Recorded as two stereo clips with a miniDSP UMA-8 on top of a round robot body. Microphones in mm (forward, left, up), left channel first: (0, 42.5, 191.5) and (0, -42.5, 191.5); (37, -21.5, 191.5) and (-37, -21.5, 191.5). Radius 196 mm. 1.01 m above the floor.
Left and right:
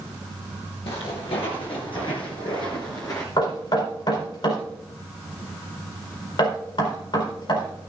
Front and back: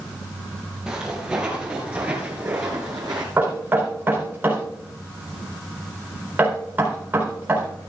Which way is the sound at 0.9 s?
100° left.